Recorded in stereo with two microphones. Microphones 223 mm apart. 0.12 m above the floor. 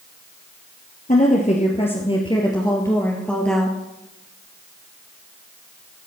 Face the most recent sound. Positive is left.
turn(degrees=0)  # may be behind; listen again after turning